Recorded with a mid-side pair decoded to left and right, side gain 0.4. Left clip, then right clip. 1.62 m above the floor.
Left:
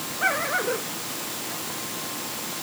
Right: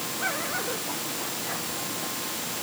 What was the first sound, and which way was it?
Only background noise.